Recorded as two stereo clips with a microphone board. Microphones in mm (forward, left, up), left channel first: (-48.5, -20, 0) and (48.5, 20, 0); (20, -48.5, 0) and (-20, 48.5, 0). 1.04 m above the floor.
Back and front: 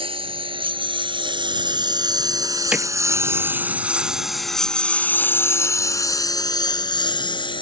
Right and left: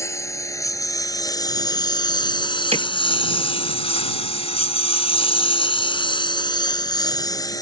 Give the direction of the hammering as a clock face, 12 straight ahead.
9 o'clock.